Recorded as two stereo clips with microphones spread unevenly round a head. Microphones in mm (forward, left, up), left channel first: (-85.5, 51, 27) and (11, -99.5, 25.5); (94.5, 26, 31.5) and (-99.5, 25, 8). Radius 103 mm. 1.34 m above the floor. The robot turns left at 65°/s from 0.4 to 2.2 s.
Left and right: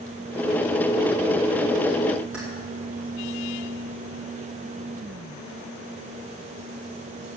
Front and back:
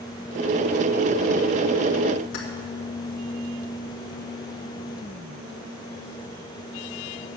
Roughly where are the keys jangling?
Ahead left.